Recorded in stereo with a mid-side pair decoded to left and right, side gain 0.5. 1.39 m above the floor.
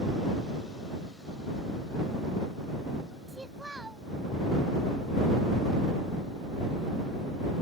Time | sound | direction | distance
3.3 | a child speaking | 10° right | ?